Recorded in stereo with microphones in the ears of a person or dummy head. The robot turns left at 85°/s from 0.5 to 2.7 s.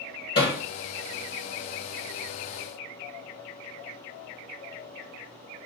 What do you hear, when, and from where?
0.3 s hammering: 30° left (ahead or behind), 1.8 m; by 0.6 s 40° left (ahead or behind), 1.8 m